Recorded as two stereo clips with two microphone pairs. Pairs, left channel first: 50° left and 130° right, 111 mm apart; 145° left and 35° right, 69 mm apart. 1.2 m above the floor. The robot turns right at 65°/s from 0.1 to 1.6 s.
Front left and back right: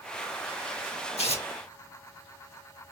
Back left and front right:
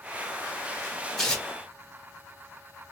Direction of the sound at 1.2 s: 60° left.